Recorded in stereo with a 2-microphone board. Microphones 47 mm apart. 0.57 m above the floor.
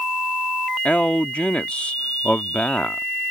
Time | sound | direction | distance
0.8 | a man speaking | 25° left (ahead or behind) | ?